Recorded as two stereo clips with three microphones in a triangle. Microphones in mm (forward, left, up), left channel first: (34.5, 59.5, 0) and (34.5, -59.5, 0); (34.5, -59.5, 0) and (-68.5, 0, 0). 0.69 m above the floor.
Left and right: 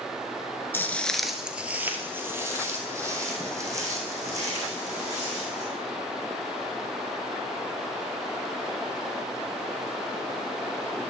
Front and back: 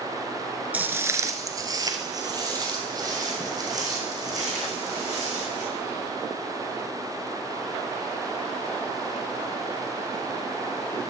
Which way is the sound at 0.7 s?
105° left.